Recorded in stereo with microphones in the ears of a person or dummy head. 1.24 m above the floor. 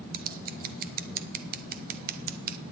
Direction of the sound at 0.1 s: 45° right (ahead or behind).